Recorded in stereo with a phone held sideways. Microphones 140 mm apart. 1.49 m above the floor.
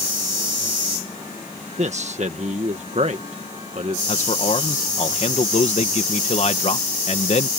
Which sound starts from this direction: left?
A man speaking, at 4.1 s.